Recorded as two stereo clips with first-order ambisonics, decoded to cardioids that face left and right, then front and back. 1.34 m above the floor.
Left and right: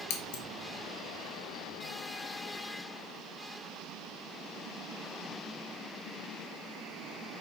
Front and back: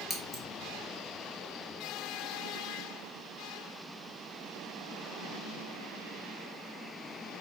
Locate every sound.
0.1 s scissors: 80° left, 1.4 m